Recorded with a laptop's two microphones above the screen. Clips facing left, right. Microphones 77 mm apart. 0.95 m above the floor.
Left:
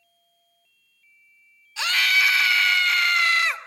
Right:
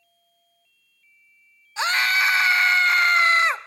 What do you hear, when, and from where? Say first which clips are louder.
1.8 s a scream: right 1 dB; 35° right (ahead or behind), 1.3 m